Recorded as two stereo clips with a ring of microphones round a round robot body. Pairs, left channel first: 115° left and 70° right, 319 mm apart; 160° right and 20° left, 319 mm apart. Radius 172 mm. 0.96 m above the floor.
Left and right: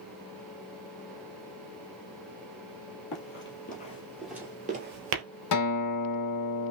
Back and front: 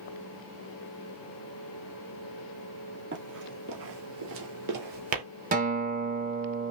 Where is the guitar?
85° left, 1.4 m.